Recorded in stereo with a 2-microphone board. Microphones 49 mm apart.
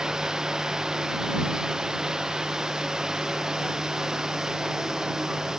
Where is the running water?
15° right (ahead or behind).